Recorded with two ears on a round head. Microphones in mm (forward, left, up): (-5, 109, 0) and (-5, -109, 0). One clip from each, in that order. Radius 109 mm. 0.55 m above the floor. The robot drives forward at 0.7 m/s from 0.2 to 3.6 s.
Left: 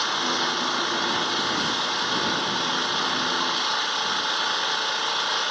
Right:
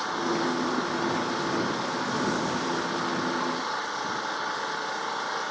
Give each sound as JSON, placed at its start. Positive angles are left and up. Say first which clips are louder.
{"t": 0.0, "sound": "an engine running", "louder": "left 4 dB", "side_deg": 75}